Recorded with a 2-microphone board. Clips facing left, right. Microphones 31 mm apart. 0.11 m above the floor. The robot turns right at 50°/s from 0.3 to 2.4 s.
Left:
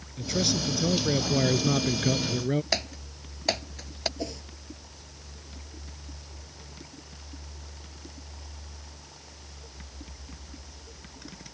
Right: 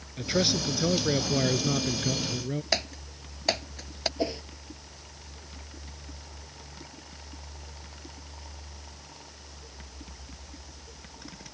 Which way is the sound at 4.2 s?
30° right (ahead or behind).